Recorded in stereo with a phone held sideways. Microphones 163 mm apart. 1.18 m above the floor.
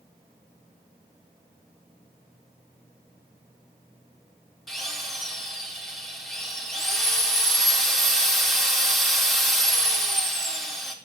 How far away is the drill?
About 4 m.